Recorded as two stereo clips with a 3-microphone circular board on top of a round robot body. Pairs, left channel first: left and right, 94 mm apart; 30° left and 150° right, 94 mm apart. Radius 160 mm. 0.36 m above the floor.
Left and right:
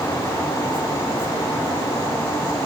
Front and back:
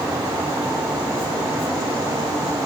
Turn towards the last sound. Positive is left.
No sound to turn to.